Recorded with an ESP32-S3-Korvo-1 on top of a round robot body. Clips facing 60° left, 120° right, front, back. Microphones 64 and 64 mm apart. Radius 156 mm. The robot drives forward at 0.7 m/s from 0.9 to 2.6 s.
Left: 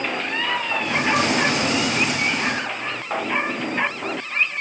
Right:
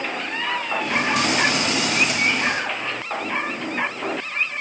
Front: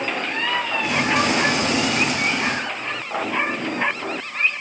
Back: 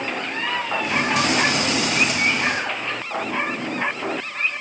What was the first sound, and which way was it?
Only background noise.